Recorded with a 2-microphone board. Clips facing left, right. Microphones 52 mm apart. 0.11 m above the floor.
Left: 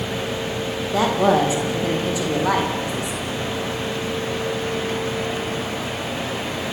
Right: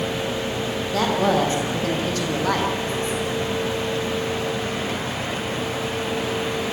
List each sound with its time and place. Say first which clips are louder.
0.9 s a woman speaking: left 3 dB; 10° left (ahead or behind), 6 m